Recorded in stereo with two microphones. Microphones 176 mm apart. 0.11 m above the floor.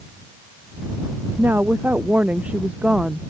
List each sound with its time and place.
1.4 s a woman speaking: 10° right (ahead or behind); by 3.3 s 5° right (ahead or behind)